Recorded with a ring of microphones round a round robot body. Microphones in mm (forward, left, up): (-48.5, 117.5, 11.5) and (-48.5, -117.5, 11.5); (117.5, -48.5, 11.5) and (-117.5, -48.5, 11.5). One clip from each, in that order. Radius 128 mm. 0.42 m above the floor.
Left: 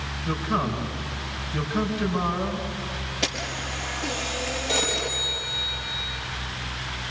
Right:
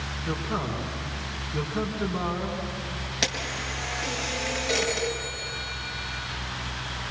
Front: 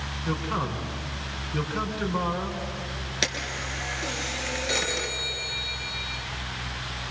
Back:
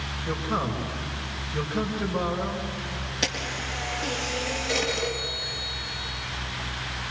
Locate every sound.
0.2 s a man speaking: 10° left, 4.5 m
3.2 s a camera shutter: 40° right, 4 m
4.7 s a phone ringing: 35° right, 4.5 m